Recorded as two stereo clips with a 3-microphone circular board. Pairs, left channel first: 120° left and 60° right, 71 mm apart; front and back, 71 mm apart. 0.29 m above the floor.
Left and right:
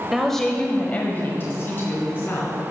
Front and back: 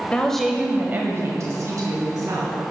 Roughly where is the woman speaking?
Ahead.